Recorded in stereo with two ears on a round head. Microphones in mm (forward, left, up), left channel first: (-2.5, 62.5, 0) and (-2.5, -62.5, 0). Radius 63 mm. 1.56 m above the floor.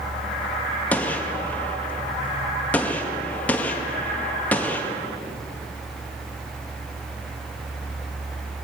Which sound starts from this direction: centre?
A gunshot, at 0.9 s.